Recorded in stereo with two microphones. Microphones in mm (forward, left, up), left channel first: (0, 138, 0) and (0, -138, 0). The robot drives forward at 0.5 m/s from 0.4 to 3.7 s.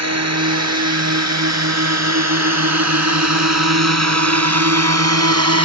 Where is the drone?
65° right (ahead or behind).